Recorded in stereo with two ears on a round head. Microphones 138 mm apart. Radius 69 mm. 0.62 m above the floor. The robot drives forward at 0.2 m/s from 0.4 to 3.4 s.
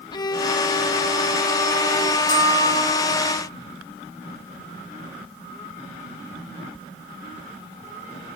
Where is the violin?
25° left (ahead or behind), 0.9 m; by 2.2 s 20° left (ahead or behind), 1.2 m.